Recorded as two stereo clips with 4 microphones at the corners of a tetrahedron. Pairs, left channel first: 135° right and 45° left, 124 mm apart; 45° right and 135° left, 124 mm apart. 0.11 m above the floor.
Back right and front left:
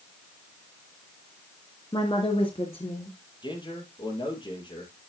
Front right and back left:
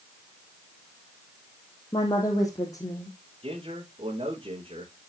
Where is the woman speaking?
95° right, 2.5 m; by 3.2 s 105° right, 3.5 m.